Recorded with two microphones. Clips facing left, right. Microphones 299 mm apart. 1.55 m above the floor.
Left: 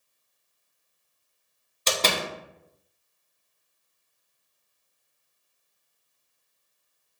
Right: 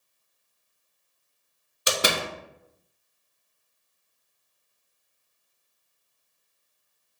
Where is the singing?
I don't hear singing.